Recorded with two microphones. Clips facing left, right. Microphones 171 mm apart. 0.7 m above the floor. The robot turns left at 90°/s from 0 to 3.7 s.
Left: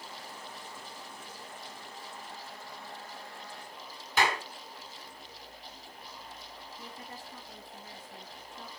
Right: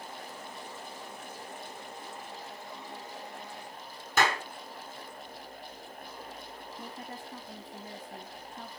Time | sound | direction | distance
4.2 | a clap | 45° right (ahead or behind) | 5 m
6.8 | a woman speaking | 55° right (ahead or behind) | 1.7 m